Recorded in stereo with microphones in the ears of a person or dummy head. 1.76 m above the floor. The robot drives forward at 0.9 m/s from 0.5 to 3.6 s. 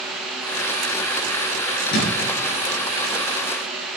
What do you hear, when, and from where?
1.9 s a thud: 65° left (ahead or behind), 3.5 m